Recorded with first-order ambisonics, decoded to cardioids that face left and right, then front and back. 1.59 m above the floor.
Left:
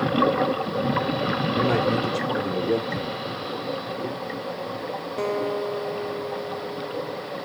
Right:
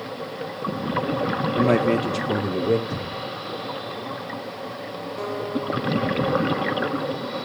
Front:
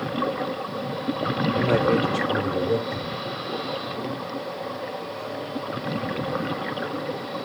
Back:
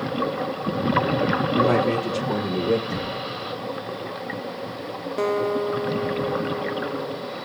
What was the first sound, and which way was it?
A man speaking, 105° right.